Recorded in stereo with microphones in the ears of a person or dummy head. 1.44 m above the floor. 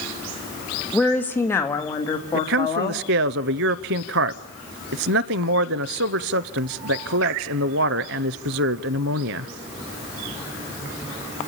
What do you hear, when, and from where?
0.9 s a woman speaking: 5° left (ahead or behind), 1.8 m; by 3.0 s 30° left (ahead or behind), 2.5 m
2.3 s a man speaking: 60° right (ahead or behind), 0.6 m